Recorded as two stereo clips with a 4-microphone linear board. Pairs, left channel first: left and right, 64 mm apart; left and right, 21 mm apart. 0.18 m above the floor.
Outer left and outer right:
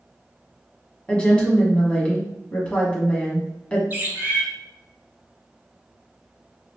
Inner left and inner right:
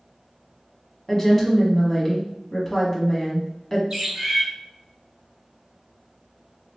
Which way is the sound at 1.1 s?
15° left (ahead or behind).